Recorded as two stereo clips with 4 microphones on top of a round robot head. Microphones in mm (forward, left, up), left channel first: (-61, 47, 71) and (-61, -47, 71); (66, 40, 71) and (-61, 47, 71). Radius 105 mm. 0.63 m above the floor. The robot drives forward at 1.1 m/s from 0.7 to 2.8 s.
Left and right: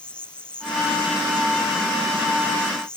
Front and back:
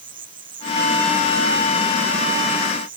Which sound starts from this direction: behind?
An insect, at 0.0 s.